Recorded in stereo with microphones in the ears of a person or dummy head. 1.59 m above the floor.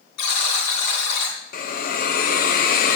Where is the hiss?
50° left (ahead or behind), 0.9 m.